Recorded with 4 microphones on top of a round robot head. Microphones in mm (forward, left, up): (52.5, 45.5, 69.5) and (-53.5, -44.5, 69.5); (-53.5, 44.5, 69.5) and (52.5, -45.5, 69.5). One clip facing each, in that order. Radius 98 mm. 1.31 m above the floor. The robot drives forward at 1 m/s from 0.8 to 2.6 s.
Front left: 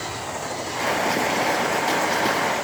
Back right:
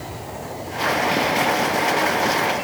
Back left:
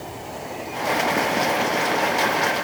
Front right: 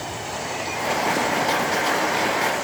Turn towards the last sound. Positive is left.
No sound to turn to.